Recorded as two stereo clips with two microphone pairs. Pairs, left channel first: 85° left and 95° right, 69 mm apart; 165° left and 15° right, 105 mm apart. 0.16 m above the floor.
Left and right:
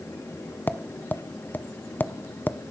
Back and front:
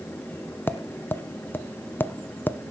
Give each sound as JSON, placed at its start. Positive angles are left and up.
{"t": 0.7, "sound": "tapping", "azimuth_deg": 115, "distance_m": 0.7}